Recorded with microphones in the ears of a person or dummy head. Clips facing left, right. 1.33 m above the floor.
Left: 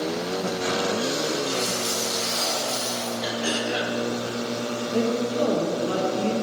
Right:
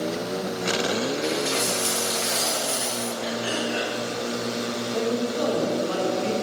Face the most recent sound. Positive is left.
turn(degrees=40)  # may be behind; listen again after turning